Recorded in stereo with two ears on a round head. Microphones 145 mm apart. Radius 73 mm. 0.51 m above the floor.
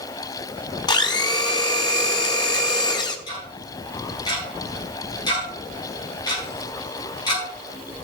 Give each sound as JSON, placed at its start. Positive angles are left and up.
{"t": 0.9, "sound": "a blender", "side_deg": 25, "distance_m": 1.1}
{"t": 3.3, "sound": "ticking", "side_deg": 25, "distance_m": 4.5}